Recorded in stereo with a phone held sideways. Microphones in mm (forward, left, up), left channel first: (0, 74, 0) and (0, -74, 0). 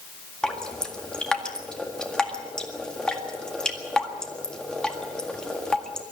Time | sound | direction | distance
0.4 | dripping | 5° left (ahead or behind) | 1.8 m